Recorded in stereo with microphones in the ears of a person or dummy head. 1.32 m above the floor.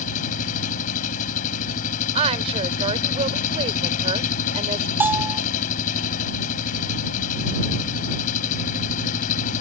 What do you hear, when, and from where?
0.0 s an engine running: 45° left (ahead or behind)
2.1 s a woman speaking: 35° right (ahead or behind)
5.0 s a bell: 10° right (ahead or behind)